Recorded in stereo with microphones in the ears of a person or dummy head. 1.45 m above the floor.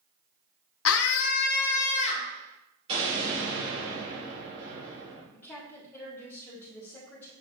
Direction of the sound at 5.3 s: 10° left (ahead or behind).